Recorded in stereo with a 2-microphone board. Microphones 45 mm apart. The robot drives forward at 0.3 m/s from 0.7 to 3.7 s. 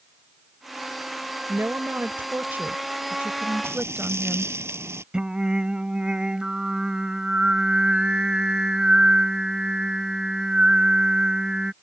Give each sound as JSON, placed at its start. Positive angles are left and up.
{"t": 1.5, "sound": "a woman speaking", "side_deg": -50}
{"t": 3.6, "sound": "frying", "side_deg": -85}
{"t": 5.1, "sound": "singing", "side_deg": -20}